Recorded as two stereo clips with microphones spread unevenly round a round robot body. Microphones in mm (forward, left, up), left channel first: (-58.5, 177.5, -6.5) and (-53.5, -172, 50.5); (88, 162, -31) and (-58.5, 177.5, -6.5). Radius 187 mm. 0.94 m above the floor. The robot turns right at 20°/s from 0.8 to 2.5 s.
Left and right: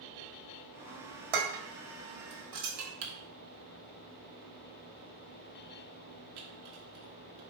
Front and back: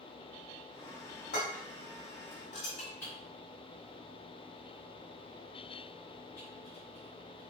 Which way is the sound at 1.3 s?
60° right.